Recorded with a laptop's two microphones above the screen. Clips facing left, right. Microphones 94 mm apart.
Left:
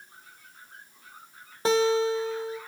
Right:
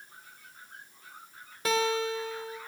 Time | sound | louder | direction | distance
1.6 | a guitar | left 6 dB | 30° left (ahead or behind) | 1.5 m